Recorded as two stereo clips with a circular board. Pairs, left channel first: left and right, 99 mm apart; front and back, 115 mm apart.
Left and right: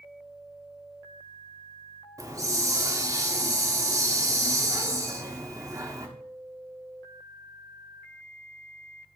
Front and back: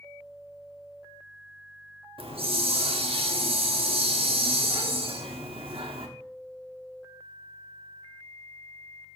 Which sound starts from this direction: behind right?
A hiss, at 2.2 s.